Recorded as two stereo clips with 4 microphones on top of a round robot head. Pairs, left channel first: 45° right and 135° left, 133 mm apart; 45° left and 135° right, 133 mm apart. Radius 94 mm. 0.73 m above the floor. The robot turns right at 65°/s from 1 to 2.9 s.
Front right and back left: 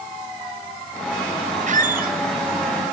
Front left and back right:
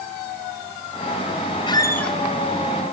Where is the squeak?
100° left, 0.9 m; by 2.2 s 135° left, 0.9 m.